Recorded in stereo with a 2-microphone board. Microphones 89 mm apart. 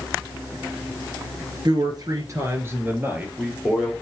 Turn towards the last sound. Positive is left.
turn(degrees=-5)  # may be behind; listen again after turning